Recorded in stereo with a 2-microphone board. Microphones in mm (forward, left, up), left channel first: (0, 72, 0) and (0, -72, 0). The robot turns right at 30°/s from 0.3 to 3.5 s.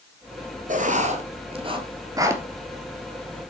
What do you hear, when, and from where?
0.7 s writing: 55° right (ahead or behind), 1.6 m; by 2.4 s 15° right (ahead or behind), 1.6 m